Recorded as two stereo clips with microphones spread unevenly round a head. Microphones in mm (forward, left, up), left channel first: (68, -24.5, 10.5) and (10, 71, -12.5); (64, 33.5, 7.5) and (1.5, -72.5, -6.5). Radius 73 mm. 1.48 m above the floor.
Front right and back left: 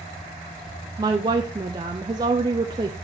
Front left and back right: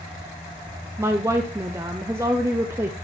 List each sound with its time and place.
1.0 s a woman speaking: 170° left, 0.5 m